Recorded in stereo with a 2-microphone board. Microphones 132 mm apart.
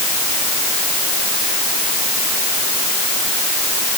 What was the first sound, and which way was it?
Only background noise.